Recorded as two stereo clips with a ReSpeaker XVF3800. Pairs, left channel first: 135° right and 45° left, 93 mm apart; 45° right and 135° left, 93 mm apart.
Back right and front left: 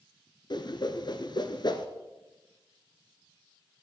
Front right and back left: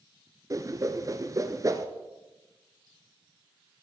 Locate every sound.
0.5 s a whoosh: 175° right, 0.9 m